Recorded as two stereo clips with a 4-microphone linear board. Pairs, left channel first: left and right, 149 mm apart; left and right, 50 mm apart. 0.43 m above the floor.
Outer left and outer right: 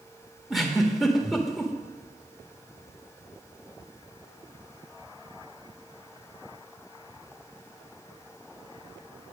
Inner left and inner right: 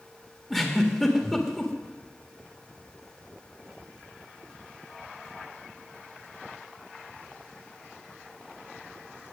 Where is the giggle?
Centre (ahead or behind), 1.5 m.